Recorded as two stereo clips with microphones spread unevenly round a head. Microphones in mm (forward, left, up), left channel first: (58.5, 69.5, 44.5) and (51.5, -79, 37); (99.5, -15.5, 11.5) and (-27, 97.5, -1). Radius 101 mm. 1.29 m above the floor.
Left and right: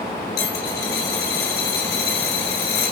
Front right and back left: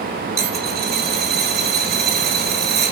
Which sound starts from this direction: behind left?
A dropped coin, at 0.4 s.